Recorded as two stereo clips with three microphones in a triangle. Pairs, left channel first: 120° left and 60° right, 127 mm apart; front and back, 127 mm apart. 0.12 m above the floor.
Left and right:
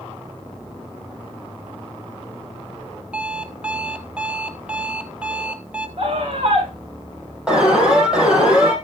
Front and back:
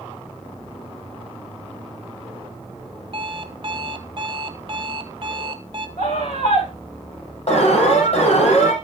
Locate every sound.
3.1 s an alarm clock: 140° right, 1.2 m
6.0 s a scream: 15° right, 9 m
7.5 s an alarm: 25° left, 5 m